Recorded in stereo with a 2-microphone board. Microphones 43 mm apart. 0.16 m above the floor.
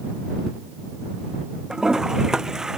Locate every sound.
1.7 s a toilet flushing: 15° right (ahead or behind)